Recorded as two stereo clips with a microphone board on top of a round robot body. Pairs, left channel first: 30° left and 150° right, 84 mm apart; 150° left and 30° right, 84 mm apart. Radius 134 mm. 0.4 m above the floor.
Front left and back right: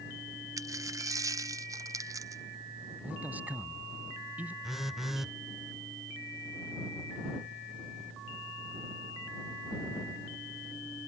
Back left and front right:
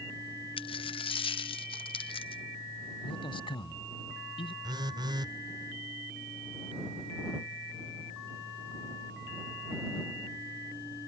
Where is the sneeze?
No sneeze in this recording.